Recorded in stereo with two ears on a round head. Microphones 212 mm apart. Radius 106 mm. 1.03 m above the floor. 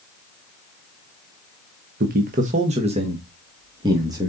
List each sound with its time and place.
2.0 s a man speaking: 40° right (ahead or behind), 1.0 m; by 4.3 s 15° right (ahead or behind), 2.0 m